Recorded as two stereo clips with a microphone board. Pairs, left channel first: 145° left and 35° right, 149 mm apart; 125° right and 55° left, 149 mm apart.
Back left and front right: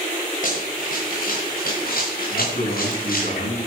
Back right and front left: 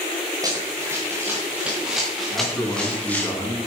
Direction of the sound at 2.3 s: 160° left.